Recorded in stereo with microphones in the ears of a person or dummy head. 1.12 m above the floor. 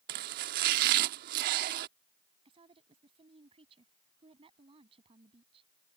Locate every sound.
0.1 s chopping: 55° right (ahead or behind)
2.5 s a woman speaking: 30° right (ahead or behind)